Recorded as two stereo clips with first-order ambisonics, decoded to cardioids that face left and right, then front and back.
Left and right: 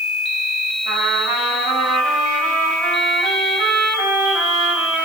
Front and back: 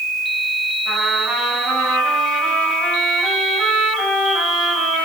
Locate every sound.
0.8 s a trumpet: 115° right, 8 m